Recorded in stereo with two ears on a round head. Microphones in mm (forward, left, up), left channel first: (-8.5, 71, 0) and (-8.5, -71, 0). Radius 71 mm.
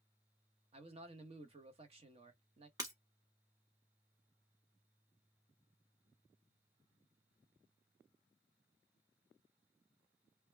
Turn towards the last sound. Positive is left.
turn(degrees=-25)  # may be behind; listen again after turning